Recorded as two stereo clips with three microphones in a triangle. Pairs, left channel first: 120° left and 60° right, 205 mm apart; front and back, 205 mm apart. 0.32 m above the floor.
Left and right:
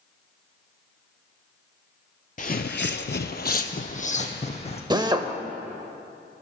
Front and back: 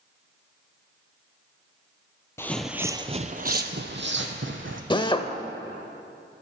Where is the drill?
25° right, 0.6 m.